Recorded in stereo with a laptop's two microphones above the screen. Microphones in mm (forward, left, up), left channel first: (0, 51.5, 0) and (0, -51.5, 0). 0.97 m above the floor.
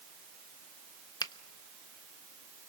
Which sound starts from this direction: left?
A finger snap, at 1.2 s.